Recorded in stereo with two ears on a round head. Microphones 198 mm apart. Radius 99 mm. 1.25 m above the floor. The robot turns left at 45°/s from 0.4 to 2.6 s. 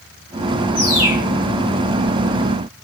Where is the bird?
45° left (ahead or behind), 1.8 m; by 1.2 s 25° left (ahead or behind), 1.8 m.